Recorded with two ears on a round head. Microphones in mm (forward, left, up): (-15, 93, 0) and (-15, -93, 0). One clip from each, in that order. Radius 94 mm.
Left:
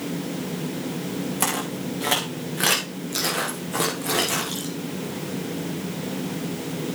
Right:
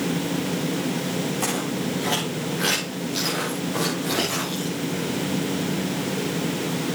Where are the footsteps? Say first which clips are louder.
Even; 55° left (ahead or behind), 6.5 m; by 4.8 s 40° left (ahead or behind), 5.5 m.